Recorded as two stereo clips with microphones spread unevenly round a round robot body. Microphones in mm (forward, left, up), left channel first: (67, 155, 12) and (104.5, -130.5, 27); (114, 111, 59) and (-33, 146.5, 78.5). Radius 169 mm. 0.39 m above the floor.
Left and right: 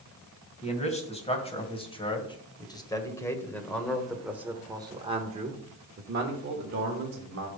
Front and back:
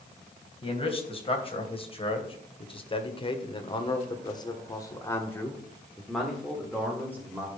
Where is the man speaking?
35° left, 3 m; by 7.5 s 115° right, 1.8 m.